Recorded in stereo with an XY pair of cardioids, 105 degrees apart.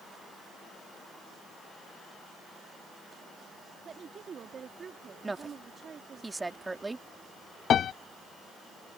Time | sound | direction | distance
3.9 | a woman speaking | 50° right | ?
5.2 | a woman speaking | 20° right | ?
7.7 | a piano | 55° left | ?